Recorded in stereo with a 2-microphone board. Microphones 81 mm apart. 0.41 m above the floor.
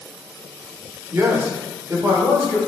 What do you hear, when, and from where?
1.1 s a man speaking: 25° right (ahead or behind), 0.8 m